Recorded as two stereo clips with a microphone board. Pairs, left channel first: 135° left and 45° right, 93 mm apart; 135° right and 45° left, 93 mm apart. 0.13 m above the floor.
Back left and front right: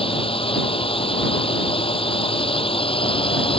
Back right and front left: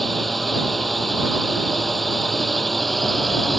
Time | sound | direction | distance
0.0 | a drone | 135° left | ?